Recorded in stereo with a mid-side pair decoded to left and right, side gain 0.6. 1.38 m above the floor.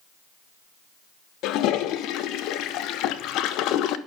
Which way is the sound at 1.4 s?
65° left.